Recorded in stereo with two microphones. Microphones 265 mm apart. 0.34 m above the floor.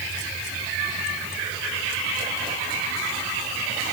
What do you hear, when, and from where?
Only background noise.